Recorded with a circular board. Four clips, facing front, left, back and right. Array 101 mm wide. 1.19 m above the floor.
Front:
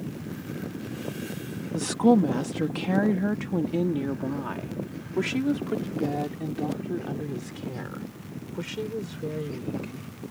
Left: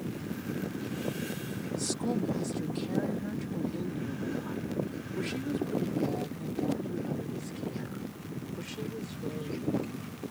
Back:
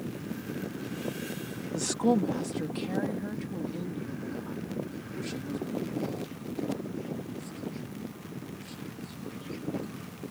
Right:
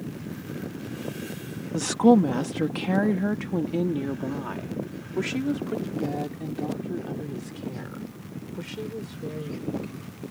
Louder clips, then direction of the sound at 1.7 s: Right 15 dB, front 6 dB; 75° right.